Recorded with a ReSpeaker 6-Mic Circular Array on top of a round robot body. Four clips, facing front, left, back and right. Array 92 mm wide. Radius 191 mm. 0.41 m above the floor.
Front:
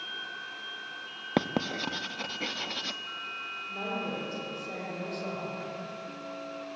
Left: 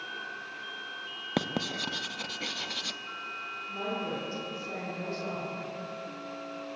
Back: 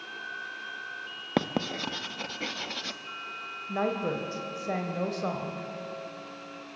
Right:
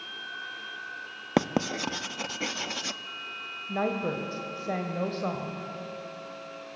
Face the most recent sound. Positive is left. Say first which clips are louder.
# right 6 dB, back 6 dB
turn(degrees=-130)